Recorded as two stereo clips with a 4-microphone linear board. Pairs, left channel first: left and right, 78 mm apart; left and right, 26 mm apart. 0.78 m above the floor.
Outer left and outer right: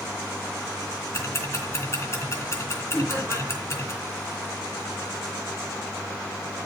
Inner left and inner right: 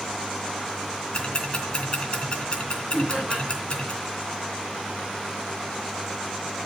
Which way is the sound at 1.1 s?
35° left (ahead or behind).